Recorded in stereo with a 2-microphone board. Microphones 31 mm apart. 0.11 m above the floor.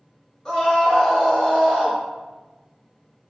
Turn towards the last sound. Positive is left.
turn(degrees=15)  # may be behind; listen again after turning